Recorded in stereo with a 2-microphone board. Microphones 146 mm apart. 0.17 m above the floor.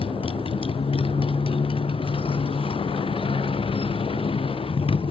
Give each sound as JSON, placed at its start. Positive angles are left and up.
{"t": 0.0, "sound": "a motorcycle", "side_deg": 40}